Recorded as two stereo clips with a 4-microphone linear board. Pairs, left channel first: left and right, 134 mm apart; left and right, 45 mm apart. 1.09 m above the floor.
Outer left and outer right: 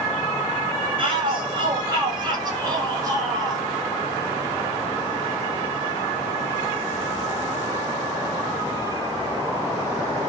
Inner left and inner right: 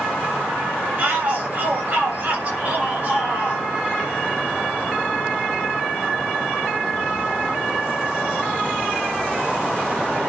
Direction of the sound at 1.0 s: 40° right (ahead or behind).